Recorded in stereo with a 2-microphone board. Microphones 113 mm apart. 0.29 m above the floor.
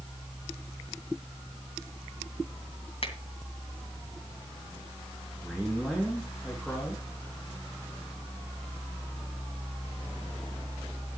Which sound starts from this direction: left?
A finger snap, at 3.0 s.